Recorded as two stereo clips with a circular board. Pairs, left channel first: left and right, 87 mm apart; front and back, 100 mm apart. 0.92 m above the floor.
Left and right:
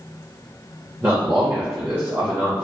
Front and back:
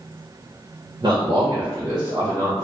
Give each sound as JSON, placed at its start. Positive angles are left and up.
{"t": 1.0, "sound": "a man speaking", "azimuth_deg": -155, "distance_m": 1.0}